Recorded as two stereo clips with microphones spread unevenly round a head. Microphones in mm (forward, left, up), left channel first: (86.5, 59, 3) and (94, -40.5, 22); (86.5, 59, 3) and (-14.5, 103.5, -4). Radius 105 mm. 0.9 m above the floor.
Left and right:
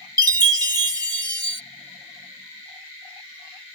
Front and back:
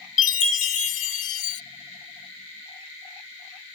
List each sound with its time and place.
0.2 s a chime: 35° right